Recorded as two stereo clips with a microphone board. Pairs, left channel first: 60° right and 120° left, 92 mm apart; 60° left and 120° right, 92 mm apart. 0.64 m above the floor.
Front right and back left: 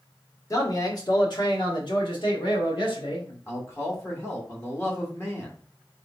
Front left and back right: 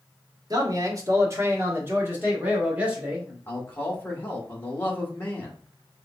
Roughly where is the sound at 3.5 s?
Ahead.